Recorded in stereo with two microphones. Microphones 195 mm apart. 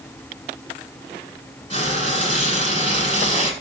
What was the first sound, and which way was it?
Frying, 30° left (ahead or behind).